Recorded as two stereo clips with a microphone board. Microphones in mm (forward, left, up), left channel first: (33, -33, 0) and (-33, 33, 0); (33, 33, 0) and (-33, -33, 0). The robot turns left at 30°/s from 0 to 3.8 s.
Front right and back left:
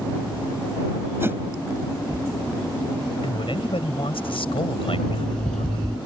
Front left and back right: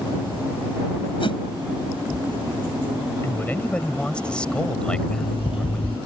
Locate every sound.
1.2 s a whoosh: 70° left; by 1.4 s 65° left
3.2 s a man speaking: 15° right; by 5.9 s 35° right
4.9 s an alarm clock: 40° left